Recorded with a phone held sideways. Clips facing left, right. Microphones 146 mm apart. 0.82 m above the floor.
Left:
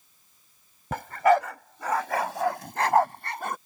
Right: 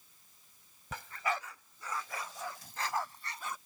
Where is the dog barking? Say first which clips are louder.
Left 16 dB; 65° left (ahead or behind); by 3.6 s 60° left (ahead or behind).